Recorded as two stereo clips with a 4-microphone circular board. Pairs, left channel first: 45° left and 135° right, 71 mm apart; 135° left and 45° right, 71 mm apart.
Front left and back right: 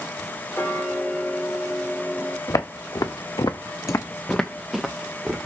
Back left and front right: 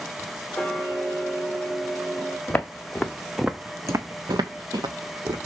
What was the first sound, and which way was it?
Ticking, 70° left.